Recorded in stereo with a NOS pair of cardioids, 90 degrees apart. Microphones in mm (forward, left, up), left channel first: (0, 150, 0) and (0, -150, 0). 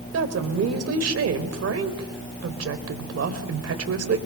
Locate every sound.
0.1 s a woman speaking: 55° right, 4 m